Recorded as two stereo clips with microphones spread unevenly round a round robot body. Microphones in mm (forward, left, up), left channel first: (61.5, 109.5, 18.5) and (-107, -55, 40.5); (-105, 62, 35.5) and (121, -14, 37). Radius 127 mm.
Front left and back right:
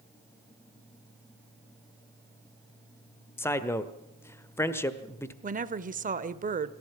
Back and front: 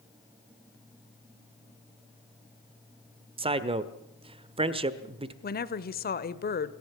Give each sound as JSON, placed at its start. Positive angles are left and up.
{"t": 3.4, "sound": "a man speaking", "azimuth_deg": -5, "distance_m": 1.2}
{"t": 5.4, "sound": "a woman speaking", "azimuth_deg": 180, "distance_m": 1.1}